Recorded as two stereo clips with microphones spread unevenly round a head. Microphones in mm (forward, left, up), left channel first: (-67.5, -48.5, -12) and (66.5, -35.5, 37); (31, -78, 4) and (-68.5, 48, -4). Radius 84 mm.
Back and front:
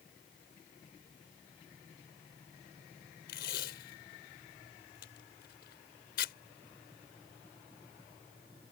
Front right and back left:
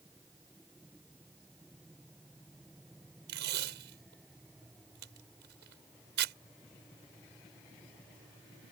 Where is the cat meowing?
No cat meowing in this recording.